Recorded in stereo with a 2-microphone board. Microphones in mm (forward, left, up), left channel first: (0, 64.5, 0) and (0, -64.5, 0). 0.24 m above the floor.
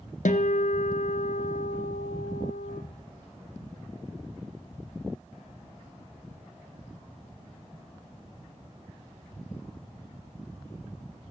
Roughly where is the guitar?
Left.